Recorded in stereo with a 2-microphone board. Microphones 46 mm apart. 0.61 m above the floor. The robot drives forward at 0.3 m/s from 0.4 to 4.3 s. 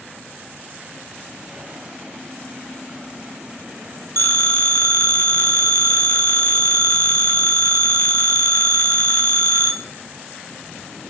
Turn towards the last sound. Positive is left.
turn(degrees=60)  # may be behind; listen again after turning